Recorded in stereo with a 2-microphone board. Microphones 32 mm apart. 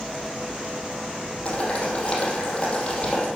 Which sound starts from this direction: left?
Boiling, at 1.4 s.